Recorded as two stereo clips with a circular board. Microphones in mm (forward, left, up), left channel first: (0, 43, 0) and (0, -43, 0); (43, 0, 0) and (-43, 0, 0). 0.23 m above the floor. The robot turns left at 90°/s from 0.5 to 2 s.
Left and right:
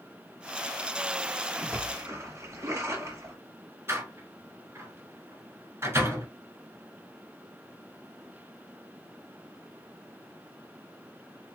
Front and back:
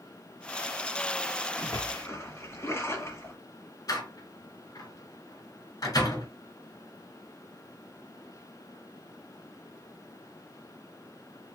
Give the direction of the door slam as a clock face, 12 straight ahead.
1 o'clock.